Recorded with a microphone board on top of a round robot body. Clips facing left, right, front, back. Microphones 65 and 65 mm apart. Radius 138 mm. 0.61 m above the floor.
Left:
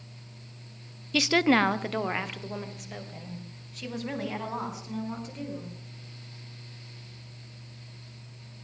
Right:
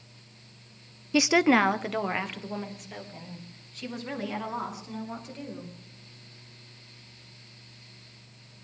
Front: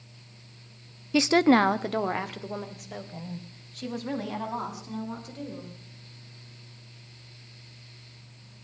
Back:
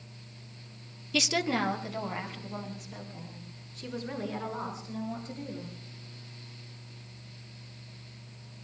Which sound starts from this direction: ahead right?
A woman speaking, at 1.1 s.